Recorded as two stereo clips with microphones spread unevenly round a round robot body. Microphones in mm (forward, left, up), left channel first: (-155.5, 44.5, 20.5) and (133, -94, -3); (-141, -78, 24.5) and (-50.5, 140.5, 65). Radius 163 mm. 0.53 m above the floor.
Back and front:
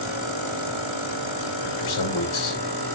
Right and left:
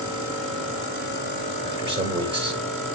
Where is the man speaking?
110° left, 2.5 m.